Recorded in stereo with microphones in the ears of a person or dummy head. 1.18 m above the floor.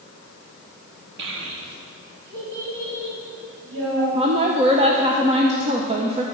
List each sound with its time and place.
1.2 s a child speaking: 65° right (ahead or behind), 0.7 m; by 4.0 s 75° right (ahead or behind), 4 m
4.2 s a woman speaking: 25° right (ahead or behind), 0.6 m